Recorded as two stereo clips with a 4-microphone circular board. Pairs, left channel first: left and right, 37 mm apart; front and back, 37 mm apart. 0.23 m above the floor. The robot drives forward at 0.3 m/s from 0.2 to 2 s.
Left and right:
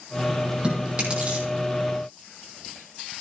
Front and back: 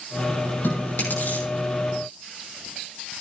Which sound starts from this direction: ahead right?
Chewing, at 0.6 s.